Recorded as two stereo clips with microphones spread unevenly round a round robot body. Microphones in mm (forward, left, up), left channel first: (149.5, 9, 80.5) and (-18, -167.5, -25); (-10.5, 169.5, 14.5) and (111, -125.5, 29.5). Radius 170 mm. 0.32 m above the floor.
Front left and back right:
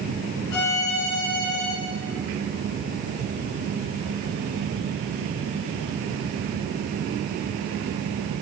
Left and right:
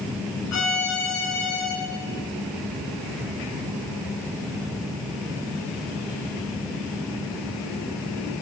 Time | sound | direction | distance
0.5 | a violin | 80° left | 3 m